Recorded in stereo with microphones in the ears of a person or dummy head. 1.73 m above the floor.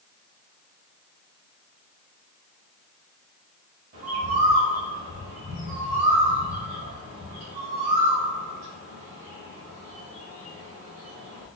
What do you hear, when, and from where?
3.9 s a bird: 45° right (ahead or behind), 1.3 m